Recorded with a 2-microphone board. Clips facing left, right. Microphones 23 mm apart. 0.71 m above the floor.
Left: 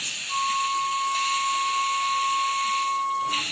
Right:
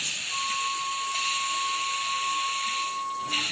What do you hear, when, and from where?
0.3 s a flute: 25° left (ahead or behind), 0.9 m